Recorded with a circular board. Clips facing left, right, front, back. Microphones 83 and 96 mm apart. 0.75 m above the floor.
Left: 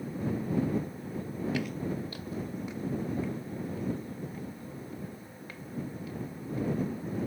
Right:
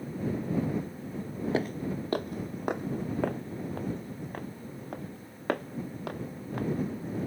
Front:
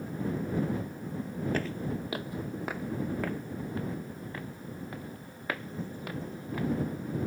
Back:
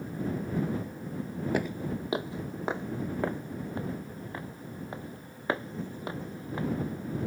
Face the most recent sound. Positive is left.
turn(degrees=-115)